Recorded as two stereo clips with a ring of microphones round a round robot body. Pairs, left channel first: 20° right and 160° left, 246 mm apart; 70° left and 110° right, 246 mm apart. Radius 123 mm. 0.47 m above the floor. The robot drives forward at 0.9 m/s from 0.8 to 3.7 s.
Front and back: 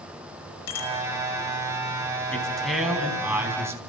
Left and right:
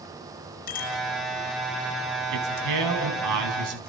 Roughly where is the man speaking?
Right.